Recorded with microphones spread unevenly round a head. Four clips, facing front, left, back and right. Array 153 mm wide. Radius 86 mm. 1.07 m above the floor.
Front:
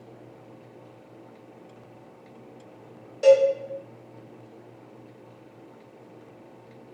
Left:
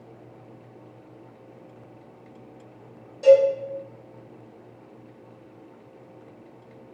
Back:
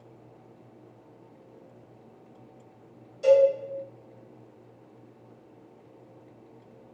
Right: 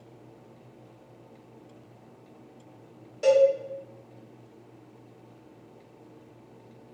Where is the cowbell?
20° right, 1.2 m.